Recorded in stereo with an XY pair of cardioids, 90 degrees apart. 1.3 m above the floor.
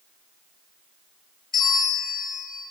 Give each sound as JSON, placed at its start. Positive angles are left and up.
{"t": 1.5, "sound": "a bell", "azimuth_deg": 70, "distance_m": 1.5}